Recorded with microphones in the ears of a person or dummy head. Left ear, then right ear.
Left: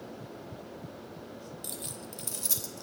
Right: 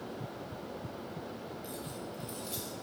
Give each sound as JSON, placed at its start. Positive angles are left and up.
{"t": 1.6, "sound": "keys jangling", "side_deg": 45, "distance_m": 0.6}